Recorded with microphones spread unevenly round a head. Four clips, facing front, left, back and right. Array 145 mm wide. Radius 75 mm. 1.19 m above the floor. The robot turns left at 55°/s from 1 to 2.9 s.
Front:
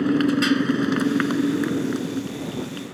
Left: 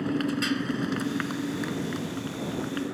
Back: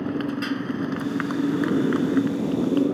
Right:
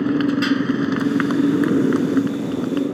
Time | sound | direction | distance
0.0 | a motorcycle | 40° right | ?